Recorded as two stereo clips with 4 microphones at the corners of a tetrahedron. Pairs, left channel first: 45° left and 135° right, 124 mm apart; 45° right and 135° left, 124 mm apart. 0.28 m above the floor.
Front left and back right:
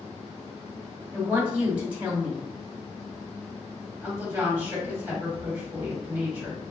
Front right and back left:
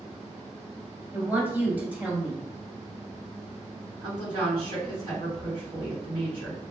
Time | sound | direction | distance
1.1 | a woman speaking | 170° left | 0.9 m
4.0 | a woman speaking | 155° left | 1.9 m